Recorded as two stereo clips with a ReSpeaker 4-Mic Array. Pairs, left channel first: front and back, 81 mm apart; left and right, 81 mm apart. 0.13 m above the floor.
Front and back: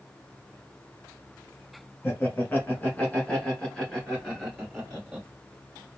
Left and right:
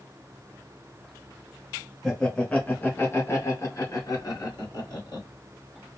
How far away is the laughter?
About 1.3 m.